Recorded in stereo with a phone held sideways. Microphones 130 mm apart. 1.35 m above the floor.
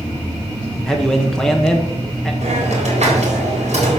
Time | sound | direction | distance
0.9 | a man speaking | 5° left (ahead or behind) | 1.1 m
2.4 | a hiss | 70° right (ahead or behind) | 4 m